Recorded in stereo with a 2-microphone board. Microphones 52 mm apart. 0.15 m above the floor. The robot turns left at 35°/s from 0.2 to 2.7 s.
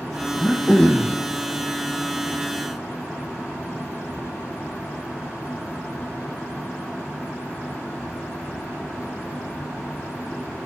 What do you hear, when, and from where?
0.4 s throat clearing: 10° left (ahead or behind), 2.5 m; by 1.2 s 35° left (ahead or behind), 2.5 m